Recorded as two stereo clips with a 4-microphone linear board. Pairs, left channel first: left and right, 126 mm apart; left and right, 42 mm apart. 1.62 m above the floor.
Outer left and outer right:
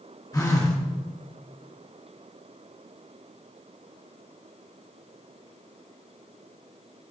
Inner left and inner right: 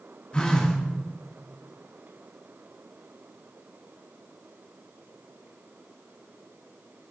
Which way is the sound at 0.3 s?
30° left (ahead or behind).